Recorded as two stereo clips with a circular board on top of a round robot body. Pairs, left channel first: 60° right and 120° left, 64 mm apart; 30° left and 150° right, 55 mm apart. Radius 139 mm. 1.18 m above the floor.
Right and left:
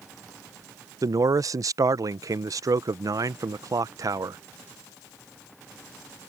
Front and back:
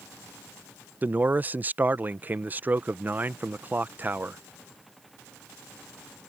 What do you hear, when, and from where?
1.0 s a man speaking: 150° left